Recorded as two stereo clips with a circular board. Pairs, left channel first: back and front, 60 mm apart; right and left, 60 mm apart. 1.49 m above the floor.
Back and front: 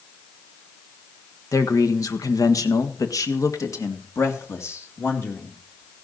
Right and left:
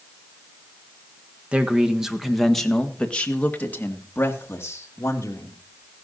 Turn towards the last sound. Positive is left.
turn(degrees=-130)